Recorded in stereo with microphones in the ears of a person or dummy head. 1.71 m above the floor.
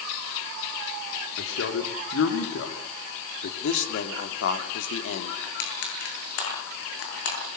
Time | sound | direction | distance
1.4 | a man speaking | 75° left (ahead or behind) | 3.5 m
3.6 | a man speaking | 75° left (ahead or behind) | 3.5 m
5.4 | crushing | 70° left (ahead or behind) | 9.5 m